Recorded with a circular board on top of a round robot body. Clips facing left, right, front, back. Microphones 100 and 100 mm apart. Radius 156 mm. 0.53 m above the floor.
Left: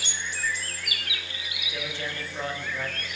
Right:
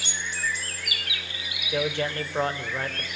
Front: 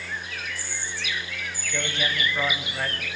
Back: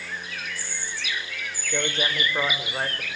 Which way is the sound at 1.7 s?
125° right.